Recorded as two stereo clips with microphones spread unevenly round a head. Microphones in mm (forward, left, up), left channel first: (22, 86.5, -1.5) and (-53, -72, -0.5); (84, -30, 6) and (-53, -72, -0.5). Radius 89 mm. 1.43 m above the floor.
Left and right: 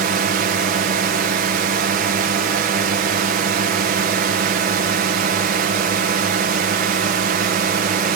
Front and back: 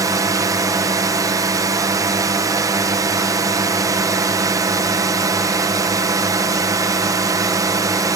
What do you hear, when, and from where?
0.0 s a drone: 105° right